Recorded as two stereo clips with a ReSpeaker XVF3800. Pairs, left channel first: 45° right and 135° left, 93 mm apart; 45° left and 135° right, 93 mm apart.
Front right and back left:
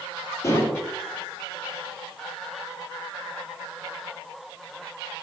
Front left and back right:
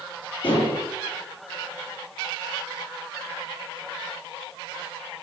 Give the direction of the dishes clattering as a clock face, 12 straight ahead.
12 o'clock.